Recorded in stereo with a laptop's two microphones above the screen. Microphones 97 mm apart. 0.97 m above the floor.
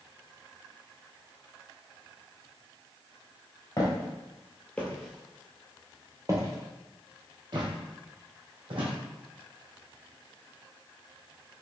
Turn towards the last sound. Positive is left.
turn(degrees=-60)  # may be behind; listen again after turning